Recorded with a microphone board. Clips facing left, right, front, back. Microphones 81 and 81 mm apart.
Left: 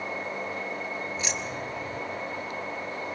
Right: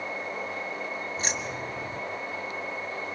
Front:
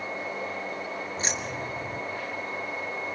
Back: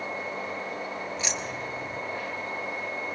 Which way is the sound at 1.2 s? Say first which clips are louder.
Even, front 1 dB; 45° right.